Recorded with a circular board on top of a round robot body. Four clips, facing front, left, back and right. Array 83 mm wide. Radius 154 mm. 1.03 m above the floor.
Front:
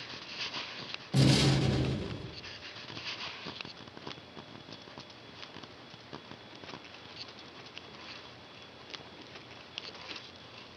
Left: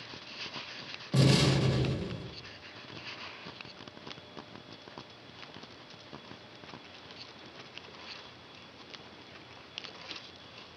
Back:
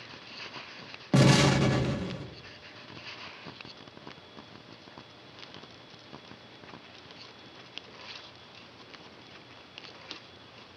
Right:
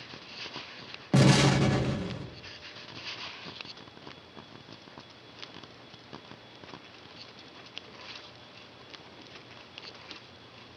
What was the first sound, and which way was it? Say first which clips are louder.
An explosion: right 4 dB, back 5 dB; 140° right.